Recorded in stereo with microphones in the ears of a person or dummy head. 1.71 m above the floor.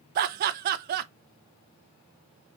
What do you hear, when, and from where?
0.1 s laughter: 50° right (ahead or behind), 0.5 m